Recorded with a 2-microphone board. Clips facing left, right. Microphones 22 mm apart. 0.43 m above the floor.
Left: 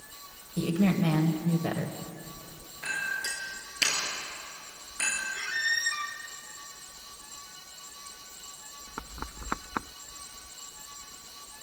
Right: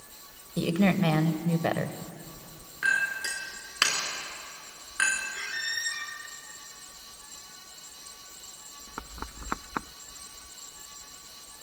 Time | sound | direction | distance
0.6 | a woman speaking | 40° right (ahead or behind) | 1.4 m
2.8 | a clink | 80° right | 4 m
5.3 | a squeak | 35° left (ahead or behind) | 2.5 m